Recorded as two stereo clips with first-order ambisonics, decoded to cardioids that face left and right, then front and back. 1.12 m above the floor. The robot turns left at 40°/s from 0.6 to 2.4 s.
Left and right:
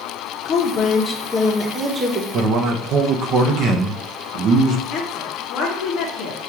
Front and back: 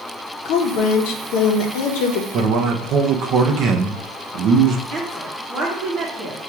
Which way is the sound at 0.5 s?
35° left.